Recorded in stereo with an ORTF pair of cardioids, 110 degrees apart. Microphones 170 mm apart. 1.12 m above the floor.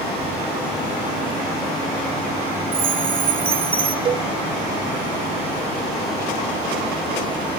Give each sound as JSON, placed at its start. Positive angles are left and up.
{"t": 2.7, "sound": "a chime", "azimuth_deg": -35, "distance_m": 3.5}
{"t": 4.0, "sound": "a cowbell", "azimuth_deg": -30, "distance_m": 0.5}